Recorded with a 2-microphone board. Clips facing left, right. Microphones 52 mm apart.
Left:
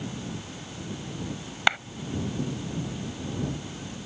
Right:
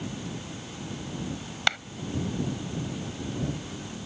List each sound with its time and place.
1.7 s a clap: 15° left (ahead or behind)